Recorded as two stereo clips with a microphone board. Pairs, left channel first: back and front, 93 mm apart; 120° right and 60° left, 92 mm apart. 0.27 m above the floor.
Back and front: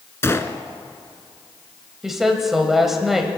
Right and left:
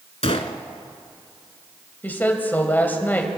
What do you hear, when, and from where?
0.2 s a gunshot: 115° right, 0.7 m
2.0 s a woman speaking: 80° right, 1.6 m